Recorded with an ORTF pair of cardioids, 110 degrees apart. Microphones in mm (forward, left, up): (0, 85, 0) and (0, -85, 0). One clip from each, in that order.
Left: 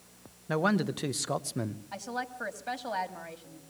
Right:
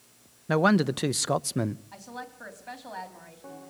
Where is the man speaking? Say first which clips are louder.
Right 5 dB; 25° right, 0.6 m.